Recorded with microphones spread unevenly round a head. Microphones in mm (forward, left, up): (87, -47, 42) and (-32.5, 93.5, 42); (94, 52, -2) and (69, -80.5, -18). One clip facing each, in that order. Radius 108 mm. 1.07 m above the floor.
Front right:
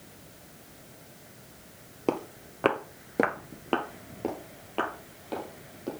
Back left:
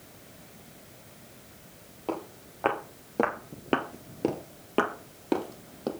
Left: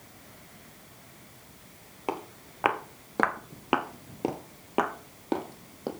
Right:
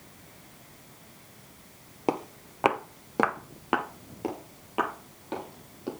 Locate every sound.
2.1 s footsteps: 55° right, 1.4 m; by 5.9 s 115° left, 2 m